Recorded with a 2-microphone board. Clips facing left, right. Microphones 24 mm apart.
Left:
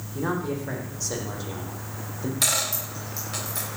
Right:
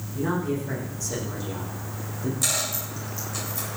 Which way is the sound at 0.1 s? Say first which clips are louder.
Right 1 dB; 30° left (ahead or behind).